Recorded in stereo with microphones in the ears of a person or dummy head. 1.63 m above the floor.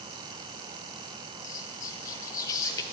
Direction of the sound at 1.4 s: 20° left (ahead or behind).